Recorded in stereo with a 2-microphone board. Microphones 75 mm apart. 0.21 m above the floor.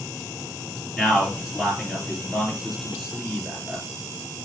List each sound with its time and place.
1.0 s a man speaking: 5° right (ahead or behind), 3.5 m